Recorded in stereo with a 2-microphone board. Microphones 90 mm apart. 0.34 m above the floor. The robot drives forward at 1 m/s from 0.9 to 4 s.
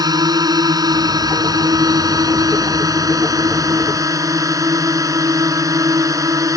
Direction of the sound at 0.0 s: 45° right (ahead or behind).